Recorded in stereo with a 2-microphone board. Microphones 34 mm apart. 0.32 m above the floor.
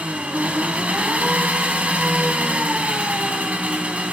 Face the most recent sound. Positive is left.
turn(degrees=-45)  # may be behind; listen again after turning